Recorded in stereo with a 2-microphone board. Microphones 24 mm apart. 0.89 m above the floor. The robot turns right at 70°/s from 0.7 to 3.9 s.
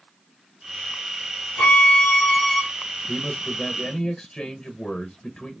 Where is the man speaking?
60° left, 0.9 m; by 5.5 s 115° left, 0.9 m.